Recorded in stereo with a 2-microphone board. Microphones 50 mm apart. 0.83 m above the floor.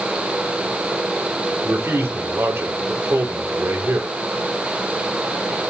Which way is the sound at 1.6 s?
65° right (ahead or behind).